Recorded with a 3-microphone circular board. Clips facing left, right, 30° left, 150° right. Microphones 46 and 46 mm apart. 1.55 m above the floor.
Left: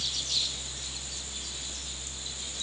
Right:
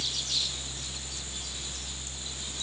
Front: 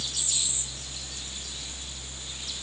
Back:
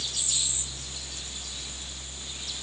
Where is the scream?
No scream in this recording.